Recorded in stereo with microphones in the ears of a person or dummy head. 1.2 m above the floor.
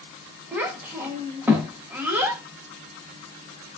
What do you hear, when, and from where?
0.5 s a child speaking: 10° right (ahead or behind), 1.3 m